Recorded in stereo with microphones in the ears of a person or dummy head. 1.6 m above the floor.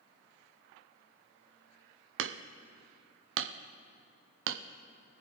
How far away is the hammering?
About 0.5 m.